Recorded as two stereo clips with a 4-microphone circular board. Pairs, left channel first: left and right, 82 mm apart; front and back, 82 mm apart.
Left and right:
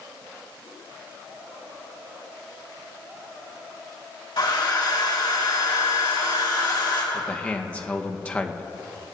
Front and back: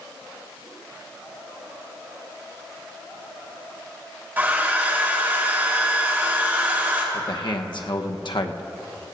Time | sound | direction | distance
4.4 | a hair dryer | 115° left | 2.5 m
7.1 | a man speaking | 15° left | 1.0 m